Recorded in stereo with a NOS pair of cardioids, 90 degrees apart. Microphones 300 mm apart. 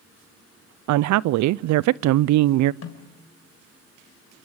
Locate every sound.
0.9 s a woman speaking: 70° right, 0.6 m
2.8 s a snare drum: 55° left, 3.5 m